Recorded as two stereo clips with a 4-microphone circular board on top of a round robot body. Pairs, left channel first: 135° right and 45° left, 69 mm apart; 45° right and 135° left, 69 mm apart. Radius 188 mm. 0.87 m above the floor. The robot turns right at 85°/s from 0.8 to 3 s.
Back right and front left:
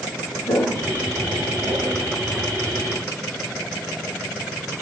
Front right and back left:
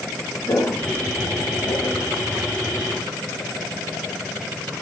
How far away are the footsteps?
About 6.5 m.